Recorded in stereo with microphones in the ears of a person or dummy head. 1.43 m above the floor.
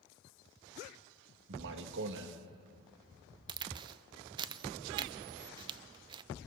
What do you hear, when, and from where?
1.5 s a man speaking: 70° right (ahead or behind), 1.7 m
3.5 s a crack: 25° right (ahead or behind), 0.5 m